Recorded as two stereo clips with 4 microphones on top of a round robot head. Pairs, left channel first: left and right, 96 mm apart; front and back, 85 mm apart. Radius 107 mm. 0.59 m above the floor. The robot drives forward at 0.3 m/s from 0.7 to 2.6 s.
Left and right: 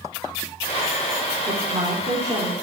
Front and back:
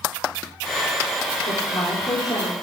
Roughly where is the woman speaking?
Ahead right.